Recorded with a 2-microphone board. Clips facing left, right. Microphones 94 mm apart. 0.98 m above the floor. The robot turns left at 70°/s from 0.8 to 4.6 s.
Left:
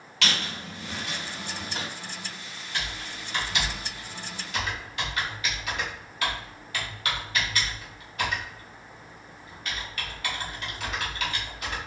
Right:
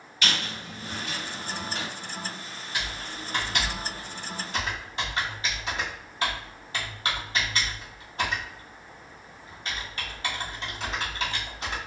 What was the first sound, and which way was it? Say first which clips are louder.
A squeak: even; 80° left.